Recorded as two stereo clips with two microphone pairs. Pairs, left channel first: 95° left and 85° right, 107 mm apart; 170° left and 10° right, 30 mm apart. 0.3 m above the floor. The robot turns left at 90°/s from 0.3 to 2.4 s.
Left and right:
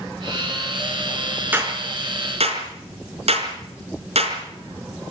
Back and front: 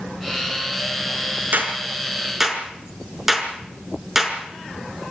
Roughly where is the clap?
Ahead.